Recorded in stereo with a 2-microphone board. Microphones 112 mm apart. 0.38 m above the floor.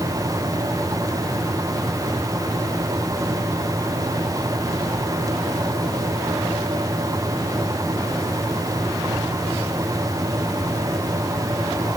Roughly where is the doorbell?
I don't hear a doorbell.